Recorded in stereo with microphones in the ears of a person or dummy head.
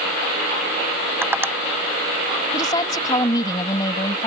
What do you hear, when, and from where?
1.2 s tapping: 15° right (ahead or behind)
2.5 s a woman speaking: 25° left (ahead or behind)